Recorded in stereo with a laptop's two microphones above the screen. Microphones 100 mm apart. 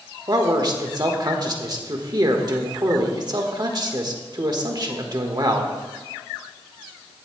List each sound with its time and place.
0.3 s a man speaking: 45° right (ahead or behind), 1.3 m